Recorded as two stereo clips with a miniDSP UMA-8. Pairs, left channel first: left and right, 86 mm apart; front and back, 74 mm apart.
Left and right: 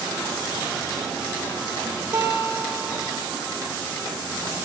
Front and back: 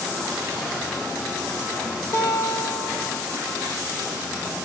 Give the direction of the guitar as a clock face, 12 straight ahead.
1 o'clock.